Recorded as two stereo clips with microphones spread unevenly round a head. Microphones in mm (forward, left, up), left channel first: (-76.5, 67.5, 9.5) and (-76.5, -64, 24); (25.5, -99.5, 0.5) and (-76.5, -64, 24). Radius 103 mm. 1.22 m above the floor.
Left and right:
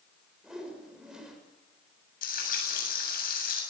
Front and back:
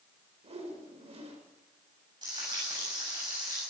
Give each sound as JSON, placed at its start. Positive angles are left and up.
{"t": 0.4, "sound": "a whoosh", "azimuth_deg": -175, "distance_m": 6.0}
{"t": 2.2, "sound": "frying", "azimuth_deg": 90, "distance_m": 7.5}